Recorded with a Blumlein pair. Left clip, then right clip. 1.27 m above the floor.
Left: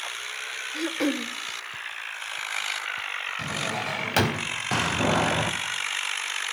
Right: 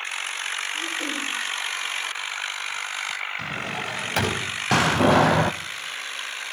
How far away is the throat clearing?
About 1.7 m.